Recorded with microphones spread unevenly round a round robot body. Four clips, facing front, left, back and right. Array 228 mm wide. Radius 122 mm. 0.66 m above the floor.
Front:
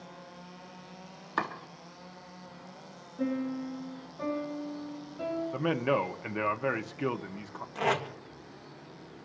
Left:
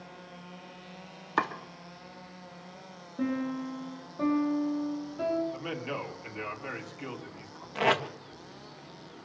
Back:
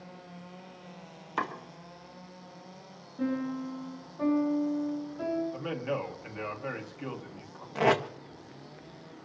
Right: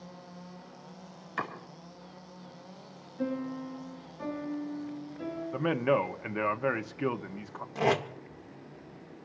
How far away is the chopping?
About 3 m.